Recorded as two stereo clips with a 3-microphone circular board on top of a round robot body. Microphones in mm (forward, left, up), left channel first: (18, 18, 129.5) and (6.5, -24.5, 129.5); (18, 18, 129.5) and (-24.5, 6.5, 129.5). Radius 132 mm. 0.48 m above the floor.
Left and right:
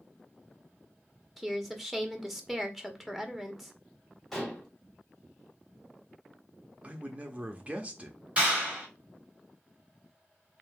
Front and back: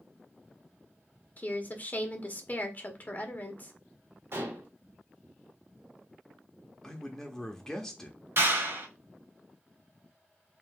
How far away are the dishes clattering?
About 2.0 m.